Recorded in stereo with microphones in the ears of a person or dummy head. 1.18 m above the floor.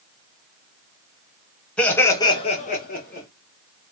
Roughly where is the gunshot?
I don't hear a gunshot.